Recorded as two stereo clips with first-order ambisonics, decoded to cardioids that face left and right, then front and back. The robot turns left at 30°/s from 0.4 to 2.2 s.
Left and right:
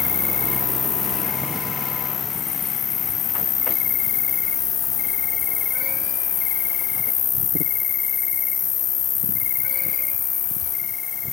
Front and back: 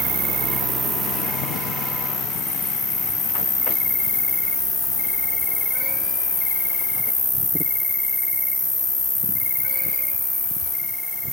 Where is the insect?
105° left, 1.5 m; by 11.3 s 50° left, 1.5 m.